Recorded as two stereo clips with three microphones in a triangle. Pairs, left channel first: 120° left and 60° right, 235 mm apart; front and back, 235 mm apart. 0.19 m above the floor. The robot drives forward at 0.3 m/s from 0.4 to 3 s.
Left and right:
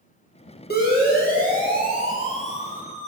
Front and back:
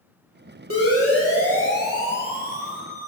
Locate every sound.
0.7 s a siren: 170° left, 5.5 m; by 3.1 s 170° right, 3.5 m